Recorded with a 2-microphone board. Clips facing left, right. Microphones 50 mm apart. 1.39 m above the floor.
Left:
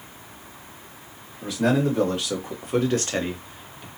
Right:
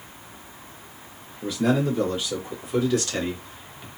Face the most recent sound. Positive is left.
turn(degrees=-5)  # may be behind; listen again after turning